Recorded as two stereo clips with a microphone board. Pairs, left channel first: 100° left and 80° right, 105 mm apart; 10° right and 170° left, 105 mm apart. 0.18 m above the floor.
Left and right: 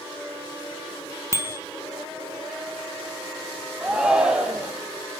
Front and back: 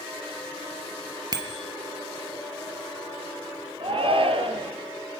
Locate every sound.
1.3 s a bicycle bell: 140° right, 3.5 m
3.8 s a shout: 160° right, 5 m